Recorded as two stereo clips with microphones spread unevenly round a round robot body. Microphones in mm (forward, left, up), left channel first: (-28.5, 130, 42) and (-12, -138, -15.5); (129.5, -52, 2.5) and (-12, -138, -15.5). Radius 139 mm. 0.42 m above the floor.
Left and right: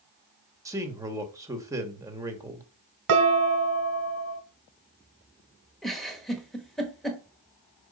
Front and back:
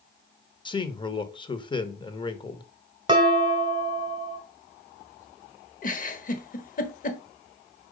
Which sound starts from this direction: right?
Dishes clattering, at 3.1 s.